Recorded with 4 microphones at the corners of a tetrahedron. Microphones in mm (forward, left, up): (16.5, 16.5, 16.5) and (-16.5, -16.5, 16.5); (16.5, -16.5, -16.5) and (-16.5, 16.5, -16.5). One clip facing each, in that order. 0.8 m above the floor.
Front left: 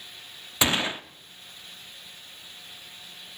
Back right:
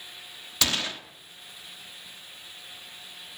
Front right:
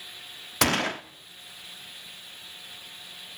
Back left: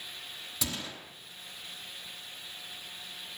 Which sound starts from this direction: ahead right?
A gunshot, at 0.6 s.